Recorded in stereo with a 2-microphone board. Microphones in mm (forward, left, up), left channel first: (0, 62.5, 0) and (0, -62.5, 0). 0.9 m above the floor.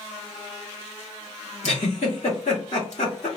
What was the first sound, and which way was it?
A giggle, 65° left (ahead or behind).